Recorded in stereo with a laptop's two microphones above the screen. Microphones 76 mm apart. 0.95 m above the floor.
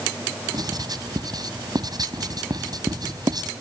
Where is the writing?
60° right (ahead or behind).